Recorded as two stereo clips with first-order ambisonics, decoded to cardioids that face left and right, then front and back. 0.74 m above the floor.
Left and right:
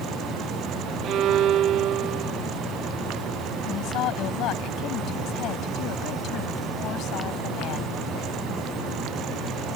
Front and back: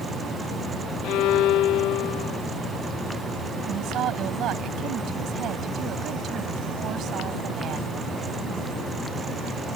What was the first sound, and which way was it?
A violin, 40° right.